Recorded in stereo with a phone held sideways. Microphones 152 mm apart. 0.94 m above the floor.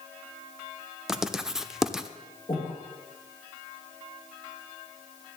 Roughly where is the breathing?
Left.